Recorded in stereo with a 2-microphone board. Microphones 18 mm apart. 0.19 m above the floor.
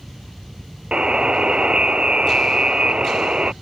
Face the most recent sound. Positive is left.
turn(degrees=-60)  # may be behind; listen again after turning